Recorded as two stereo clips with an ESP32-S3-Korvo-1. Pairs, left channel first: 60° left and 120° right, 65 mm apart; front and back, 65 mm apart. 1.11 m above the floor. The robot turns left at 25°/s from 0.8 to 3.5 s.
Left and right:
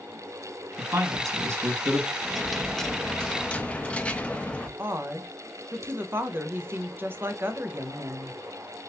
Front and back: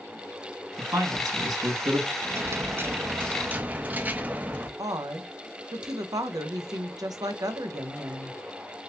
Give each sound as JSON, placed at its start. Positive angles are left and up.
{"t": 0.8, "sound": "a man speaking", "azimuth_deg": -140, "distance_m": 1.6}
{"t": 2.2, "sound": "a dropped coin", "azimuth_deg": 155, "distance_m": 0.5}
{"t": 4.8, "sound": "a woman speaking", "azimuth_deg": -175, "distance_m": 0.7}